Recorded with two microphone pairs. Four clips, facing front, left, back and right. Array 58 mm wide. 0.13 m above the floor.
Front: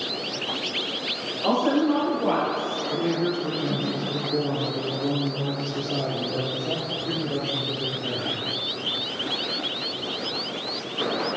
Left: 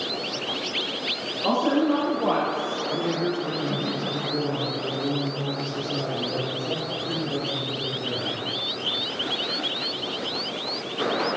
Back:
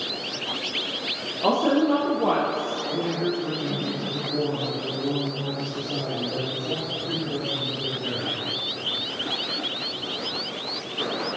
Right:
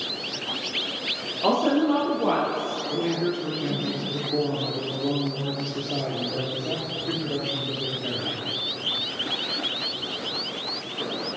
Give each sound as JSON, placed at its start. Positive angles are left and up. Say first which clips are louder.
{"t": 1.4, "sound": "a woman speaking", "louder": "right 1 dB, back 1 dB", "azimuth_deg": -120, "distance_m": 2.5}
{"t": 2.9, "sound": "a man speaking", "louder": "right 1 dB, front 2 dB", "azimuth_deg": -70, "distance_m": 2.5}